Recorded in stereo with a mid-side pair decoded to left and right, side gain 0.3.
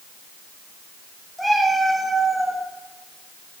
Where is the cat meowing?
5° left, 5.5 m; by 2.6 s 5° right, 6.5 m.